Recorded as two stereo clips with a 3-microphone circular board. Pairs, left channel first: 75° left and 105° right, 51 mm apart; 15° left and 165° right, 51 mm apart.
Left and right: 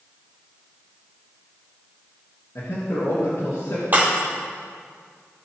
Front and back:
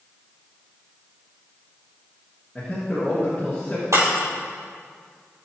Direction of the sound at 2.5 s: 95° left.